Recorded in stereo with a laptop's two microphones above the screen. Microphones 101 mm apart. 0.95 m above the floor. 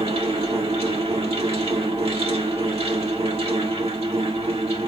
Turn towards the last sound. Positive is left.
turn(degrees=-80)